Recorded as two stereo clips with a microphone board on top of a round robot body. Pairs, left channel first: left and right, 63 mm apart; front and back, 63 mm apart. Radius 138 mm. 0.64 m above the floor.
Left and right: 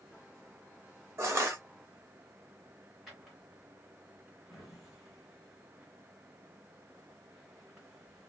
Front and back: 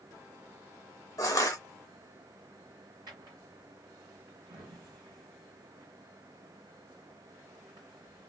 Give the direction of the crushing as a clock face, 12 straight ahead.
1 o'clock.